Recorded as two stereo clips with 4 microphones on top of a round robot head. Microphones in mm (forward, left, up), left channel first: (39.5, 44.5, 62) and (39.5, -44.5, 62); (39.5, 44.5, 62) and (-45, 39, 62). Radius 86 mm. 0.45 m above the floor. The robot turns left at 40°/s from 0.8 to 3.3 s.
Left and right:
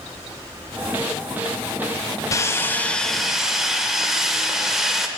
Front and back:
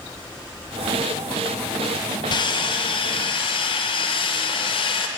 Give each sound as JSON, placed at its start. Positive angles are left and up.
{"t": 2.3, "sound": "sawing", "azimuth_deg": 35, "distance_m": 0.7}